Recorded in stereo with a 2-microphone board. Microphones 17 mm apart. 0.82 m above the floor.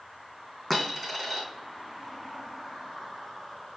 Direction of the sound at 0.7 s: 15° left (ahead or behind).